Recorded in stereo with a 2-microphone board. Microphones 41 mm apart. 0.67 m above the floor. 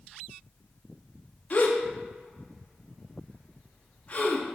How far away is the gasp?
About 0.8 m.